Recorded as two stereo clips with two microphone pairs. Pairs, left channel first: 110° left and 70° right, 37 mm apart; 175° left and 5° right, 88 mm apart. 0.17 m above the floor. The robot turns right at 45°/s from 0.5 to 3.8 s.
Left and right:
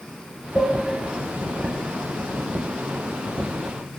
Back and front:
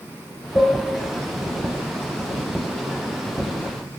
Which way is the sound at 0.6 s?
145° left.